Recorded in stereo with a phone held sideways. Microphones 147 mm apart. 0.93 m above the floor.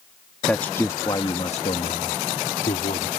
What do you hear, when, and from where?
0.5 s a man speaking: 10° left (ahead or behind); by 3.1 s 70° left (ahead or behind)